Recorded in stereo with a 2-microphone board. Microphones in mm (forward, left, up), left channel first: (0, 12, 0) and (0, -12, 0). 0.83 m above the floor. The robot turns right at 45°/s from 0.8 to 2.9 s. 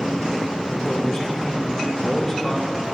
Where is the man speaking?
15° left (ahead or behind), 0.8 m.